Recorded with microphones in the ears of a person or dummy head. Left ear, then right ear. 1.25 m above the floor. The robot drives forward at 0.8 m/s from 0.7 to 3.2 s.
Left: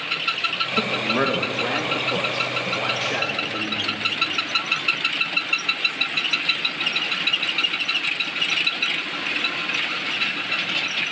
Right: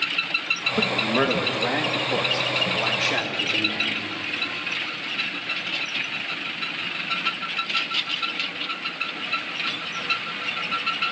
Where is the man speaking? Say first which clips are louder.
Left 1 dB; 20° right (ahead or behind), 1.9 m; by 4.0 s 10° right (ahead or behind), 3.5 m.